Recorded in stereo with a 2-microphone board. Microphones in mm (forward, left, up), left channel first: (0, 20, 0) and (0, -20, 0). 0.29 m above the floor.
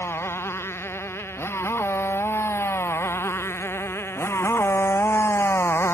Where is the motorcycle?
85° left; by 5.9 s 75° left (ahead or behind).